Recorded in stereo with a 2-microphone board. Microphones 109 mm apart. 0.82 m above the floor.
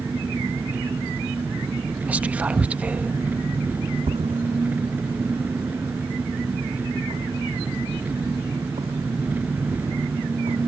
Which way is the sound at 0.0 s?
15° right (ahead or behind).